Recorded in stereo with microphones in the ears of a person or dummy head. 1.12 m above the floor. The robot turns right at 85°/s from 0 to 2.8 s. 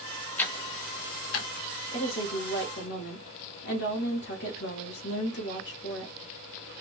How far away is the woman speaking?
About 1.1 m.